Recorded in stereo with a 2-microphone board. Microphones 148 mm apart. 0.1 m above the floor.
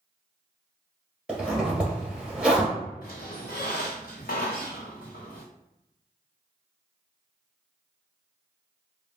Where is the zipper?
10° right (ahead or behind), 1.6 m.